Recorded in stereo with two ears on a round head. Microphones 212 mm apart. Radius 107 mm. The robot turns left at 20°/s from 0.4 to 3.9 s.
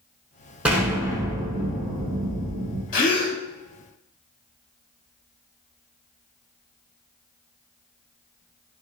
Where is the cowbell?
No cowbell in this recording.